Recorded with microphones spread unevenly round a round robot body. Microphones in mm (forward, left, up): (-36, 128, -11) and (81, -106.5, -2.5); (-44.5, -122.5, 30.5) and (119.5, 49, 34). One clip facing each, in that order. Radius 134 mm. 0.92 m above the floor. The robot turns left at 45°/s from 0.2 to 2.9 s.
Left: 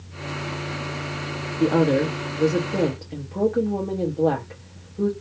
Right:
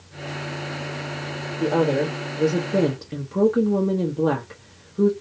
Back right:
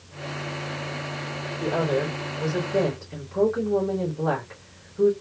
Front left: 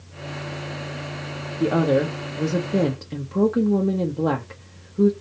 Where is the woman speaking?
65° left, 0.8 m; by 5.1 s 10° left, 0.8 m.